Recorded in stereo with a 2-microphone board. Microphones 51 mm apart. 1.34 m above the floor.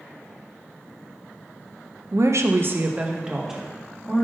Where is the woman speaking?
70° right (ahead or behind), 0.7 m; by 4.2 s centre (ahead or behind), 2 m.